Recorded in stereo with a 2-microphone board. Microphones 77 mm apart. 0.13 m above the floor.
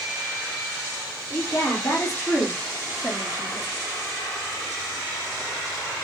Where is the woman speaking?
40° left (ahead or behind), 5.5 m.